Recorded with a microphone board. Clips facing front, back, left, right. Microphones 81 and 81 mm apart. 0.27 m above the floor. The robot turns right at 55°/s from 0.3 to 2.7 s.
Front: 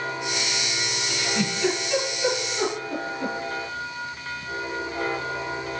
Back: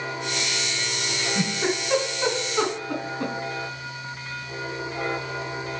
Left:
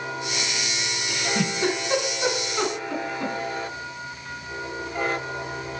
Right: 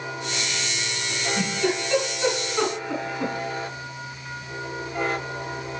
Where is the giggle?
95° left, 2 m; by 3.3 s 175° right, 2 m.